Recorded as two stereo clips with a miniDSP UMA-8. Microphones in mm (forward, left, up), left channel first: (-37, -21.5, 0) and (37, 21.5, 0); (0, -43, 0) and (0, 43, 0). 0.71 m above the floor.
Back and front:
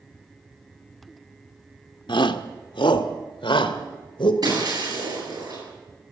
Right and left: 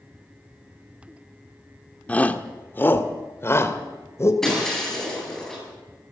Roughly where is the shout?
Behind.